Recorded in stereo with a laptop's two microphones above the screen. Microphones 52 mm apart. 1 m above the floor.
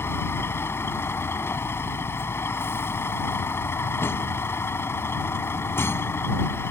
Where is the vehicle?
50° left (ahead or behind).